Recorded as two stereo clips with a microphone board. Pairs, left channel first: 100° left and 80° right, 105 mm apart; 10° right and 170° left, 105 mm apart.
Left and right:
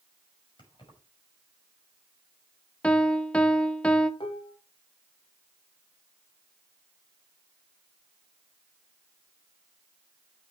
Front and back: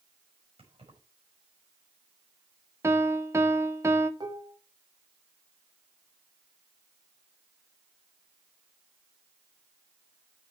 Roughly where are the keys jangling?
Behind left.